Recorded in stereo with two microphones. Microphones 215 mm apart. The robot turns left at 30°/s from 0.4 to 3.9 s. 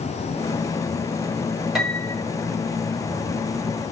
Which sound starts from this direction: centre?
A piano, at 1.8 s.